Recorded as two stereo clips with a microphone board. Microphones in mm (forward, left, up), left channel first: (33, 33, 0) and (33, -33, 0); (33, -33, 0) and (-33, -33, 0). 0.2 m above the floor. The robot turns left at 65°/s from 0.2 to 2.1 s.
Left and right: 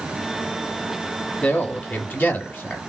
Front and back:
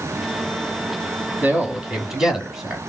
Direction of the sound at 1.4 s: 150° left.